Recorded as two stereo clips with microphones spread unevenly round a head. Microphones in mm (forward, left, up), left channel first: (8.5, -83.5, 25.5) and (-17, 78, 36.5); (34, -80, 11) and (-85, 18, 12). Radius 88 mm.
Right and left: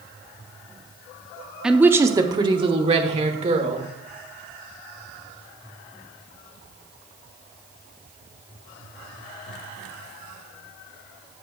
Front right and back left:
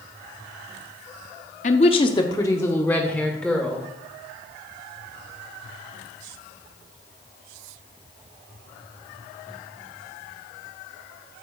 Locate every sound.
1.6 s a woman speaking: 10° left, 0.6 m; by 3.9 s 50° left, 1.6 m